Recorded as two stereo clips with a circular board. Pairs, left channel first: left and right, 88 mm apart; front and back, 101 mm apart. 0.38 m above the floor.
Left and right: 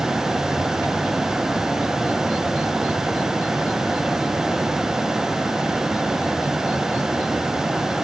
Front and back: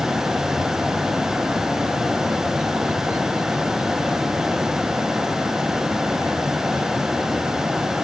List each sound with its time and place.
Only background noise.